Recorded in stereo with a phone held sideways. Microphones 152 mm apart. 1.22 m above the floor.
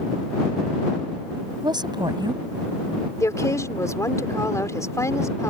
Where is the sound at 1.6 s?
30° right (ahead or behind).